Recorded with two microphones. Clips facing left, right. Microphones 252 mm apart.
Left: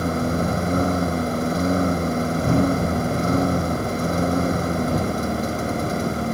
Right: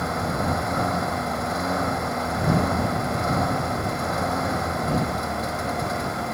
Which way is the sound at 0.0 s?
35° left (ahead or behind).